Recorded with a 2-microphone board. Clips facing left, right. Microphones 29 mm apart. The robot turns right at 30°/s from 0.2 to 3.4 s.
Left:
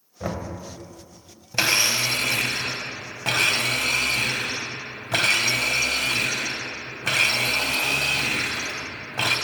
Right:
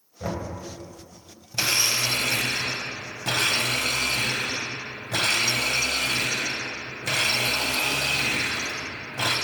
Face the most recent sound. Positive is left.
turn(degrees=95)